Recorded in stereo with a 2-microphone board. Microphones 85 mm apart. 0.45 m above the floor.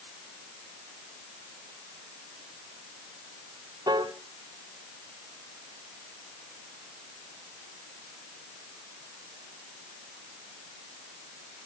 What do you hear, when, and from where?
3.9 s a piano: 55° right (ahead or behind), 1.1 m